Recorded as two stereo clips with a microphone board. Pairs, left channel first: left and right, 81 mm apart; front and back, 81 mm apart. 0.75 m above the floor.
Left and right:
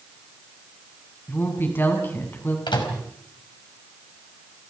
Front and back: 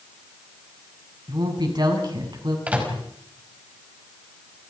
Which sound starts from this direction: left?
A microwave, at 2.7 s.